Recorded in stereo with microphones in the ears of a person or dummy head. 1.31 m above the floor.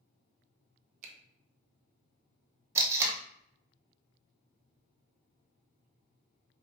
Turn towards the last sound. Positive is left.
turn(degrees=-20)  # may be behind; listen again after turning